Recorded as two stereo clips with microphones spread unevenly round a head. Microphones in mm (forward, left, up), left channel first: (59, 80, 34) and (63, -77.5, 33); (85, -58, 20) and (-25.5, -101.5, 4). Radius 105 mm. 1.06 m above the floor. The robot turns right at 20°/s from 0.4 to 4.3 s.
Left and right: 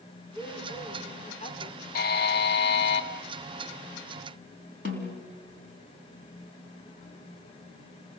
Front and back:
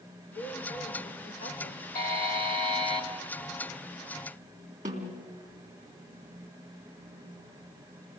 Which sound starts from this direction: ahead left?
A buzzer, at 1.9 s.